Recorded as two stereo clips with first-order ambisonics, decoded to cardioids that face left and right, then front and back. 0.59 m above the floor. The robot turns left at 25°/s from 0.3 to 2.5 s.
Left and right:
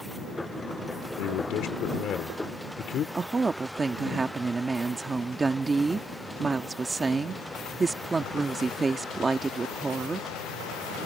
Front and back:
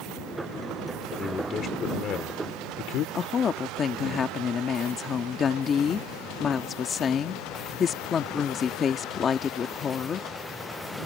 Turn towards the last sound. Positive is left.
turn(degrees=-30)